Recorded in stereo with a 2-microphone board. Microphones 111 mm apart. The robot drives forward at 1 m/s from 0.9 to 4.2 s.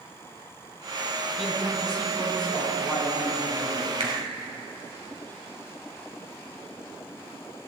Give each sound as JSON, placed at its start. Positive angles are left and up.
{"t": 1.4, "sound": "a man speaking", "side_deg": 0, "distance_m": 6.0}
{"t": 4.0, "sound": "a finger snap", "side_deg": -75, "distance_m": 3.0}